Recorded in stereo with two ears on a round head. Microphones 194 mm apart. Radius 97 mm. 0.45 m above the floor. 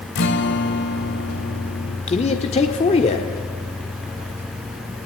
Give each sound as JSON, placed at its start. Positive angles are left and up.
{"t": 0.1, "sound": "a guitar", "side_deg": 55, "distance_m": 1.7}
{"t": 2.1, "sound": "a man speaking", "side_deg": 30, "distance_m": 1.4}